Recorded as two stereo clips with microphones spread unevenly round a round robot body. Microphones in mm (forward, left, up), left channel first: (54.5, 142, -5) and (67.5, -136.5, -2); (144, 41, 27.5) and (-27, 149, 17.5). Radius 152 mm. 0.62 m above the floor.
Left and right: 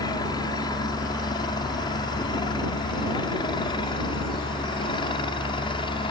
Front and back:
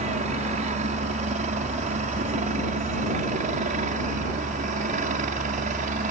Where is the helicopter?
160° left; by 6.1 s 155° left.